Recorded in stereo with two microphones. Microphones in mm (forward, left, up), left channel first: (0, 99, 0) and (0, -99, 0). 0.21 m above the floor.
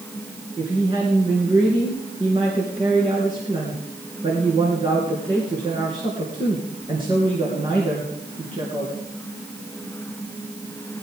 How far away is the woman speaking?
About 3 m.